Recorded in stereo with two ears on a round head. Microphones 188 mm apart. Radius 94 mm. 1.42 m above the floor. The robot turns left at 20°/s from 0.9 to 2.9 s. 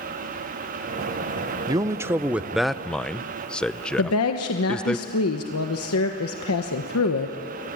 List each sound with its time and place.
1.7 s a man speaking: 20° right (ahead or behind), 0.6 m; by 5.0 s 5° left (ahead or behind), 0.6 m
4.0 s a woman speaking: 80° left, 1.3 m